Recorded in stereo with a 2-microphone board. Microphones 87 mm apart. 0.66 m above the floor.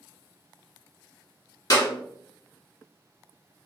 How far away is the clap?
About 1.5 m.